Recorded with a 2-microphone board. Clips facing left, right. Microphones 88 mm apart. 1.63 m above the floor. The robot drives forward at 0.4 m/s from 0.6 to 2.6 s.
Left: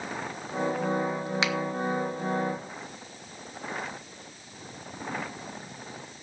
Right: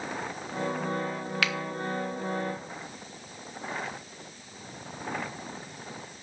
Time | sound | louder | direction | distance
1.4 | a finger snap | left 1 dB | 20° left (ahead or behind) | 1.1 m